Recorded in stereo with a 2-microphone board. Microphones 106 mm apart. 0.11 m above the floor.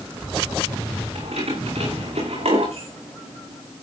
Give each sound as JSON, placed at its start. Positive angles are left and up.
{"t": 1.1, "sound": "keys jangling", "side_deg": -80, "distance_m": 6.5}